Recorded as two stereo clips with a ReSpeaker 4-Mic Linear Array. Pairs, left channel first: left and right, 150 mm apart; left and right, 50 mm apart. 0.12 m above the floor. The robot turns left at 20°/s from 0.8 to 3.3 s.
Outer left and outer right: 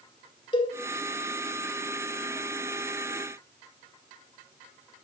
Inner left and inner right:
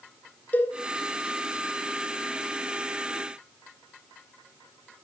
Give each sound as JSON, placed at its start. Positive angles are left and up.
{"t": 0.5, "sound": "a cowbell", "side_deg": 35, "distance_m": 1.4}